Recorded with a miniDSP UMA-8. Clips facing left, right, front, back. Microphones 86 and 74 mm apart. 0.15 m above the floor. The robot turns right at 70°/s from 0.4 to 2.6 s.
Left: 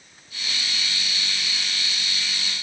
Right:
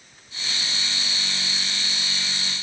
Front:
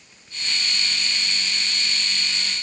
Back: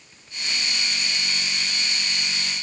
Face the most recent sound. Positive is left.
No sound to turn to.